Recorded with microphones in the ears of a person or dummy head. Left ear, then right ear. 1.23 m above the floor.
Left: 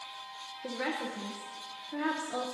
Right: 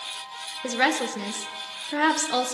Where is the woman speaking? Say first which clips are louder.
Right 11 dB; 45° right (ahead or behind), 0.5 m.